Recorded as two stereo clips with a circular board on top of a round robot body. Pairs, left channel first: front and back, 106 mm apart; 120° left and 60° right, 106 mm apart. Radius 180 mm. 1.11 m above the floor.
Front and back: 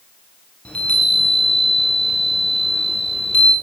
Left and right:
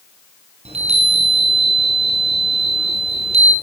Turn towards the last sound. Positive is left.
turn(degrees=-80)